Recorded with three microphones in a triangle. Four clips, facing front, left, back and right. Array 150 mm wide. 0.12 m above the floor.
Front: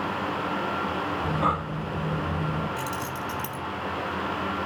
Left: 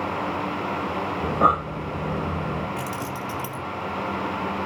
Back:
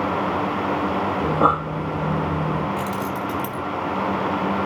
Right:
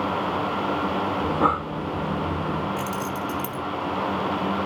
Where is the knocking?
I don't hear knocking.